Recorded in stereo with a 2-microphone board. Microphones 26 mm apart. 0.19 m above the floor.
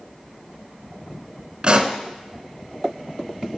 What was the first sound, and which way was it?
A pop, 35° right (ahead or behind).